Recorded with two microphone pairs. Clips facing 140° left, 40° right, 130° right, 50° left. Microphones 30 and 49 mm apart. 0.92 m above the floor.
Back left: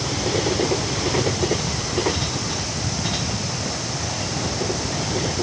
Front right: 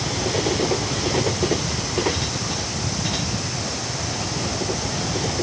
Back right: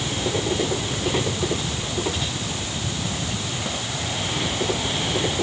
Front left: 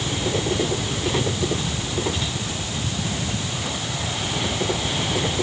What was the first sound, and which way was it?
Only background noise.